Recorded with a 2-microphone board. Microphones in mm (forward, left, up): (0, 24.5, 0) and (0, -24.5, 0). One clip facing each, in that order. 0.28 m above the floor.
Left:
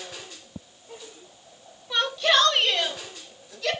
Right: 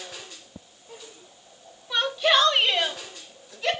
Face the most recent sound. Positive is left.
turn(degrees=-30)  # may be behind; listen again after turning